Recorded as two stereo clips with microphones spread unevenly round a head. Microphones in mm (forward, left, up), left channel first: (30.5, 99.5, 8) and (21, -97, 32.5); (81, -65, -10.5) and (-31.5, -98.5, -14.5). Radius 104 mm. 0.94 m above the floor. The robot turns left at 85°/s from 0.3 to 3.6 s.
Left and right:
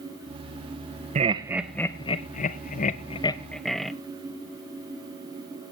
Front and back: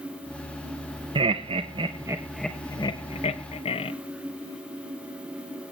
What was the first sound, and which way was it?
Laughter, 145° right.